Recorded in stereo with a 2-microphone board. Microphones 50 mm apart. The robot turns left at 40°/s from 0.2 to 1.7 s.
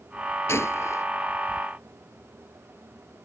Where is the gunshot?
60° left (ahead or behind); by 1.1 s 70° left (ahead or behind).